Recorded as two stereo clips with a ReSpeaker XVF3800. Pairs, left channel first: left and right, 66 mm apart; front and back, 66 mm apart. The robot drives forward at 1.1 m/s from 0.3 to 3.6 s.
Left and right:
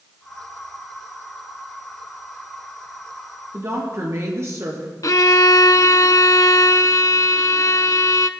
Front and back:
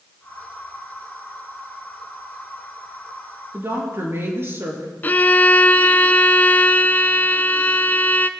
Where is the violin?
60° left, 0.6 m.